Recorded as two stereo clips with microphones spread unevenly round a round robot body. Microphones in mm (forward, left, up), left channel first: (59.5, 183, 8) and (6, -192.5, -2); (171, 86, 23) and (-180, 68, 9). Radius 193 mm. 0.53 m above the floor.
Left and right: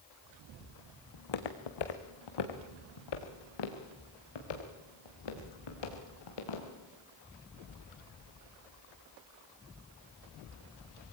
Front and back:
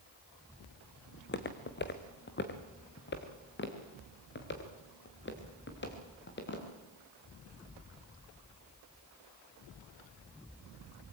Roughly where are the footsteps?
Ahead left.